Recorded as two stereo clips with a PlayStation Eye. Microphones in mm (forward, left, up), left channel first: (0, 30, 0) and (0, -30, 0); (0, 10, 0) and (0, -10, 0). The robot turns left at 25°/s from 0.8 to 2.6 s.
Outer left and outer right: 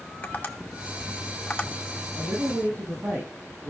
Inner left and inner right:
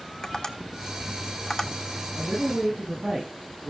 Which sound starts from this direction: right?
A woman speaking, at 2.1 s.